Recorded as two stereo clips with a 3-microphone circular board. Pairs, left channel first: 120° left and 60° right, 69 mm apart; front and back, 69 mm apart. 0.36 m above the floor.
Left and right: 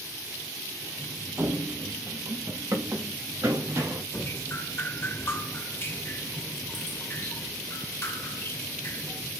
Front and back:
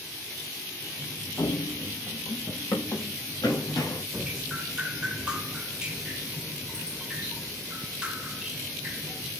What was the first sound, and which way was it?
Running footsteps, 15° right.